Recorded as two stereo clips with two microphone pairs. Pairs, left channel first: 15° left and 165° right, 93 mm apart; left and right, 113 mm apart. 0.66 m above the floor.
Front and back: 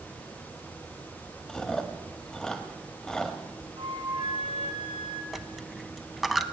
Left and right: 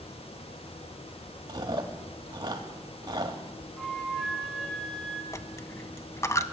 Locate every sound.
1.5 s chewing: 65° right, 1.3 m
3.8 s a flute: straight behind, 1.7 m
5.3 s a dropped coin: 105° left, 0.5 m